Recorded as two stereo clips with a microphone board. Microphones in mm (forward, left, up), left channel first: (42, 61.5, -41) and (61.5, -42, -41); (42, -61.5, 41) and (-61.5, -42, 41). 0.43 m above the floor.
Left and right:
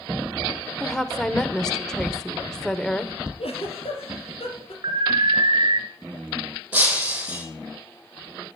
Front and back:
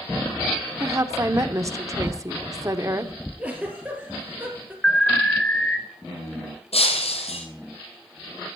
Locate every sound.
0.8 s a woman speaking: straight behind, 0.8 m
3.4 s a giggle: 95° left, 3.5 m
4.8 s an alarm: 90° right, 1.3 m
6.7 s breaking glass: 5° right, 2.5 m